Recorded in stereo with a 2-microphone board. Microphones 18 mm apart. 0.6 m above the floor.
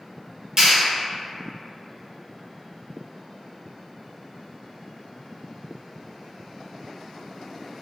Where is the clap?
35° right (ahead or behind), 1.7 m.